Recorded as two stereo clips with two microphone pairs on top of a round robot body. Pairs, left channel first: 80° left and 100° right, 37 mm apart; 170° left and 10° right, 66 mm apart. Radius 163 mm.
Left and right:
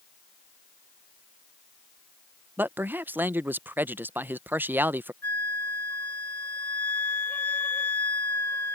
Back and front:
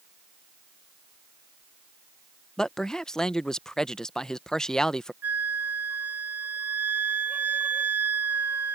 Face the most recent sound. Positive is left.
turn(degrees=60)